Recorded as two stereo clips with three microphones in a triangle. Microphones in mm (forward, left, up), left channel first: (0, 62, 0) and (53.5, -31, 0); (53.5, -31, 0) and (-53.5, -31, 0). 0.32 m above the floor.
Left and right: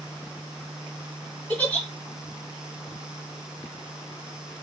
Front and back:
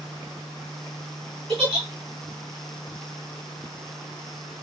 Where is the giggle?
165° right, 2 m.